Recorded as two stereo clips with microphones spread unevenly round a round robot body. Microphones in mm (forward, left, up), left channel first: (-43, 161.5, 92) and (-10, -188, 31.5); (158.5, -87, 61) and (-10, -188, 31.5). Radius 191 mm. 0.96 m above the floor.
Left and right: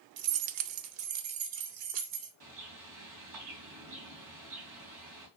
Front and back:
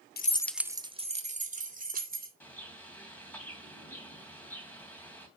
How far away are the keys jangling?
About 0.5 m.